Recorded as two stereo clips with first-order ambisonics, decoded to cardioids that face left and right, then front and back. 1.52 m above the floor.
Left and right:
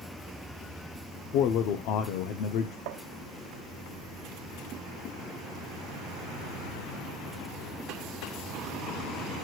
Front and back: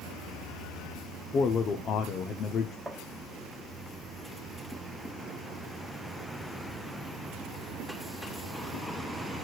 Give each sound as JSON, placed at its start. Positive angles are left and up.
{"t": 1.3, "sound": "a man speaking", "azimuth_deg": 60, "distance_m": 0.8}
{"t": 2.9, "sound": "tapping", "azimuth_deg": -95, "distance_m": 0.9}